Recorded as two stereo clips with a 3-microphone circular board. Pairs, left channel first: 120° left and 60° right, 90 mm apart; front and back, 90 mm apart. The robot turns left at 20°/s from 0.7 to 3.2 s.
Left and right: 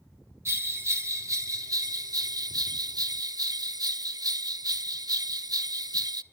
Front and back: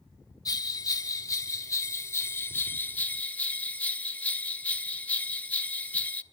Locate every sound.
0.5 s a bell: 15° right, 0.6 m; by 6.2 s 65° right, 0.6 m